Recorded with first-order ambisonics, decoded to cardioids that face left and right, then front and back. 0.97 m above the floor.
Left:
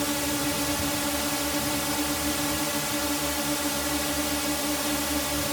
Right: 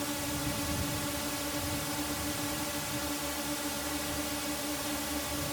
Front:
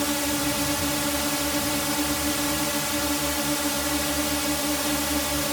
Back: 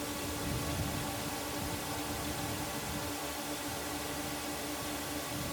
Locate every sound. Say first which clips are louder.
0.0 s a drone: left 8 dB, front 13 dB; 30° left